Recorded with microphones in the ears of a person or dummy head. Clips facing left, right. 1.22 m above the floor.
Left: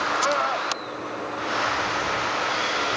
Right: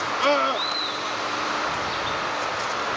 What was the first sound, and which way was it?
A scream, 45° right (ahead or behind).